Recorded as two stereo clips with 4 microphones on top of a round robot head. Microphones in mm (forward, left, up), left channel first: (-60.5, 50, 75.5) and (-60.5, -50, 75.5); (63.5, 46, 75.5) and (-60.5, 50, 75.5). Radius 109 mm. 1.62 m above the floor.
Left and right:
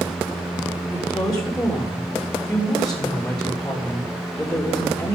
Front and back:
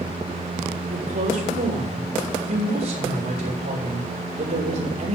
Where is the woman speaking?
170° left, 3.5 m.